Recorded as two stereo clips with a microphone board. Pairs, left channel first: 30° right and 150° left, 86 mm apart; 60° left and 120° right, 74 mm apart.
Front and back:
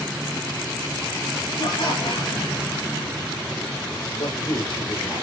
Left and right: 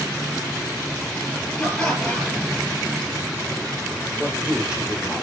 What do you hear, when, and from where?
1.6 s laughter: 20° right, 4.5 m
4.2 s a man speaking: 40° right, 8.5 m